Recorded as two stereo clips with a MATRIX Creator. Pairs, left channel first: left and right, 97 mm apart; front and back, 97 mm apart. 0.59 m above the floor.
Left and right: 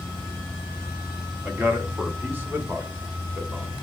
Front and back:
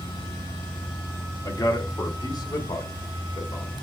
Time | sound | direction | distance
1.4 | a man speaking | 25° right | 1.4 m